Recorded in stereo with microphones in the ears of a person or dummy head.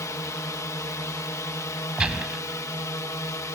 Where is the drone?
10° left (ahead or behind).